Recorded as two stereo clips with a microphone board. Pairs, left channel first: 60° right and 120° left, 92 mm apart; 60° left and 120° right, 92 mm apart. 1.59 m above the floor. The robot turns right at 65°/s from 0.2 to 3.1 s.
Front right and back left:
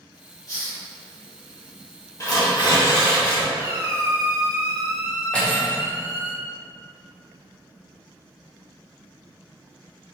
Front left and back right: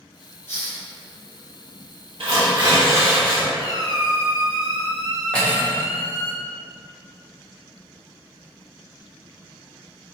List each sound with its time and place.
0.5 s a hiss: 10° right, 0.7 m; by 0.8 s 15° left, 0.7 m
2.2 s tearing paper: 115° right, 0.8 m; by 3.5 s 55° right, 0.8 m
3.5 s a squeak: 80° left, 0.6 m
5.3 s cutlery clinking: straight ahead, 0.7 m